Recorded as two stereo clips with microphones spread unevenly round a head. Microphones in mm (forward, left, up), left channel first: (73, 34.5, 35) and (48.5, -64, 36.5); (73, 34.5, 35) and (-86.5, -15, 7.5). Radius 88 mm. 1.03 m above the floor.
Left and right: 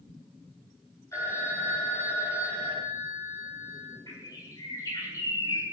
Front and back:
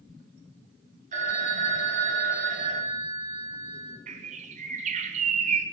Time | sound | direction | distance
1.1 | a phone ringing | 150° left | 5 m
4.1 | a bird | 145° left | 1.8 m